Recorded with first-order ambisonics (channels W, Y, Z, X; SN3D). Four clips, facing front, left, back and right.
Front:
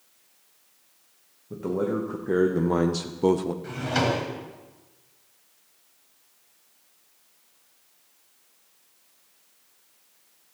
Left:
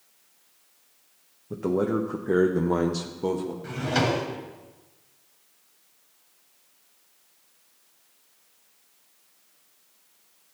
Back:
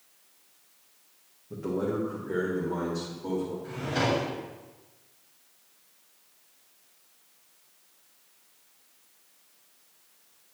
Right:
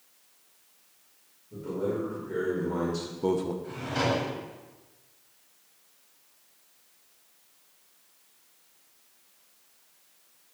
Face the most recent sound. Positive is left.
turn(degrees=50)